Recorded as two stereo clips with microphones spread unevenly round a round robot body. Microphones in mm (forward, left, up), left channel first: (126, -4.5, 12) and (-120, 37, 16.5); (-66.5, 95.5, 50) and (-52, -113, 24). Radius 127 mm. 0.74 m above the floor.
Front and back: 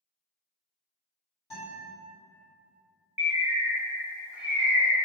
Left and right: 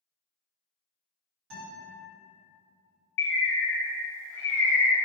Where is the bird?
85° left, 0.6 m.